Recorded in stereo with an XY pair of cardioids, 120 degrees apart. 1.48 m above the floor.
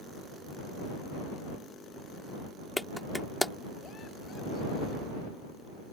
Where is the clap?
5° left.